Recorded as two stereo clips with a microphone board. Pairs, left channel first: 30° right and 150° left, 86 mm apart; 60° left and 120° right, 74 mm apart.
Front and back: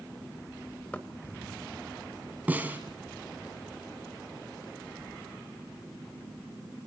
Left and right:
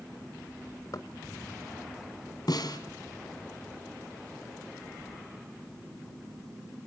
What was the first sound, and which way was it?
Knocking, 40° left.